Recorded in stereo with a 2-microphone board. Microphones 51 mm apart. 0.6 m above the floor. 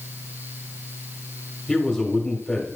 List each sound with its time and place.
1.7 s a man speaking: centre (ahead or behind), 1.7 m